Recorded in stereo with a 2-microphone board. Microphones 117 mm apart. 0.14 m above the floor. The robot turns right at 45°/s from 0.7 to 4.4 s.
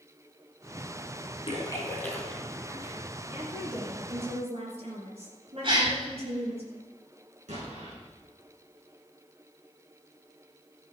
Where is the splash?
40° left (ahead or behind), 2.5 m; by 3.0 s 25° right (ahead or behind), 2.5 m.